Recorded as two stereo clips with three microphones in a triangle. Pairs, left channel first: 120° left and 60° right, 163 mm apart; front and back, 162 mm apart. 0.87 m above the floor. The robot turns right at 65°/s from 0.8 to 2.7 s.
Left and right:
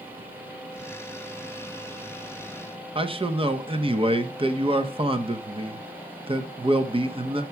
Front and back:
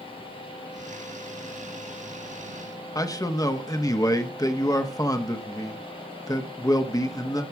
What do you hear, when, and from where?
3.0 s a man speaking: 50° right, 0.9 m